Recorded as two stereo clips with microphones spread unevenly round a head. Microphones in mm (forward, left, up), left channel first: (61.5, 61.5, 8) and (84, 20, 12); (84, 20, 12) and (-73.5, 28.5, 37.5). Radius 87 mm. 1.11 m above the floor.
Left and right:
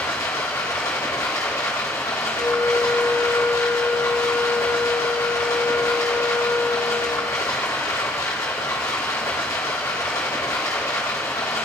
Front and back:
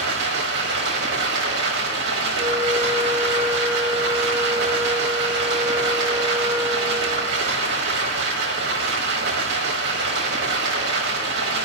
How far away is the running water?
About 1.1 m.